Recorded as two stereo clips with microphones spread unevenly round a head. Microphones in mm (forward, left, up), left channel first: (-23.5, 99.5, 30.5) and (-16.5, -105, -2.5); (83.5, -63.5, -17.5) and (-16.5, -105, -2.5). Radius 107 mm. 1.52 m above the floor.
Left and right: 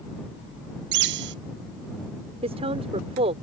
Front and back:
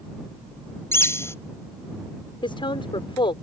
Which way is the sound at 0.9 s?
45° right.